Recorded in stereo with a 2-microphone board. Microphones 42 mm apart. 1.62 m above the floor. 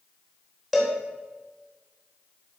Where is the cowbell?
5° left (ahead or behind), 2.5 m.